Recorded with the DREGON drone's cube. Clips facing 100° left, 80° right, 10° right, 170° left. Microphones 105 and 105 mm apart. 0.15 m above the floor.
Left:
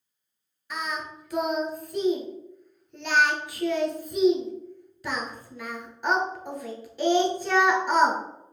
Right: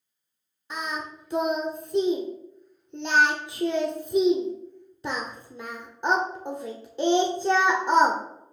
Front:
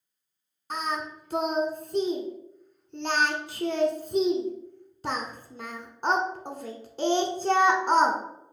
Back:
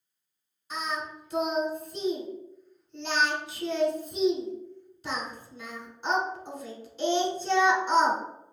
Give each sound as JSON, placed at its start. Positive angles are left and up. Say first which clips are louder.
{"t": 0.7, "sound": "singing", "louder": "even, front 3 dB", "azimuth_deg": -25, "distance_m": 0.8}